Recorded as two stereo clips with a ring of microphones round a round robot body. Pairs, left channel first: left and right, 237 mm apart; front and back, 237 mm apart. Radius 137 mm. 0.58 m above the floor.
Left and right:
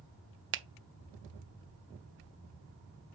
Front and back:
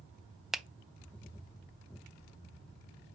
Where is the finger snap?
90° right, 0.5 m.